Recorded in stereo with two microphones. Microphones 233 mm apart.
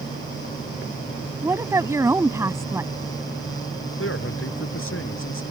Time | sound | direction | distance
1.4 | a woman speaking | 10° right (ahead or behind) | ?
4.0 | a man speaking | 65° left (ahead or behind) | ?